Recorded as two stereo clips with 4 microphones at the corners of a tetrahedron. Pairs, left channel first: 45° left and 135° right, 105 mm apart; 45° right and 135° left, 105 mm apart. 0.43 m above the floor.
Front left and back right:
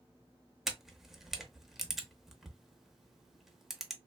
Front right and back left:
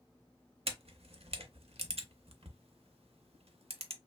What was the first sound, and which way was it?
A camera shutter, 140° left.